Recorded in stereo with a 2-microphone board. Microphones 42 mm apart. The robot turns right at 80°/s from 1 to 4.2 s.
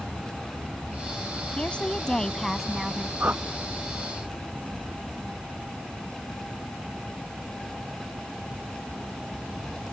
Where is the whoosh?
40° right (ahead or behind); by 3.4 s 60° right (ahead or behind).